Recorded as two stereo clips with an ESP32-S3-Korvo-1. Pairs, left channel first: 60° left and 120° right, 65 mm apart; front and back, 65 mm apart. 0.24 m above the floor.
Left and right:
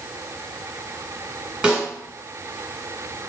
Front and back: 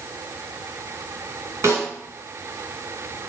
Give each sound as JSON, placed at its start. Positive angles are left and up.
{"t": 1.6, "sound": "a snare drum", "azimuth_deg": 165, "distance_m": 1.5}